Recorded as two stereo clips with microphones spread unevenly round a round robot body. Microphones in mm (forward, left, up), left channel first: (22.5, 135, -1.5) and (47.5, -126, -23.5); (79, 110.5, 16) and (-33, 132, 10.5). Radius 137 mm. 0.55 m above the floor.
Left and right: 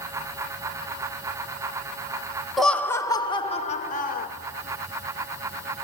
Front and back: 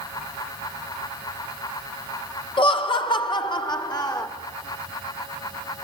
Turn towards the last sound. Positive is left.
turn(degrees=40)